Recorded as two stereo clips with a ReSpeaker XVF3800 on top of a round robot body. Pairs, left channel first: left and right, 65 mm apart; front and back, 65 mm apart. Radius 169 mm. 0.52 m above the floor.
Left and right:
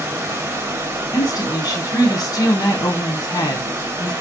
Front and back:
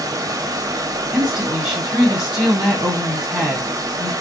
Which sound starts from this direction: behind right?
Running water, at 0.0 s.